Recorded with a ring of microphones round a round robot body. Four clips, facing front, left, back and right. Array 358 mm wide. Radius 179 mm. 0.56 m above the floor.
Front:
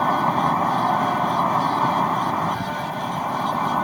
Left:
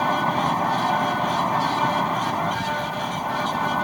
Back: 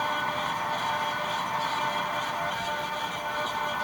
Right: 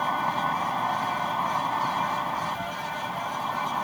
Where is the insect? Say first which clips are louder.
Left 5 dB, front 10 dB; 30° left.